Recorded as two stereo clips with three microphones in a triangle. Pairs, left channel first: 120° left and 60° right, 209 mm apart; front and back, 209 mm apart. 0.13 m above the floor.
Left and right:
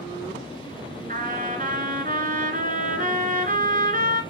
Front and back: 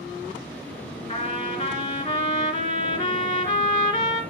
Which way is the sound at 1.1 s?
45° right.